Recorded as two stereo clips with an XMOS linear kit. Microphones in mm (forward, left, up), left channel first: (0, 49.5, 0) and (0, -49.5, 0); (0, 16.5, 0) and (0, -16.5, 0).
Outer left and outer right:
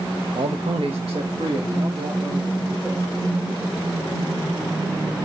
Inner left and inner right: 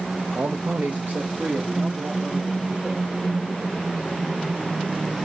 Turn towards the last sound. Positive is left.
turn(degrees=-70)  # may be behind; listen again after turning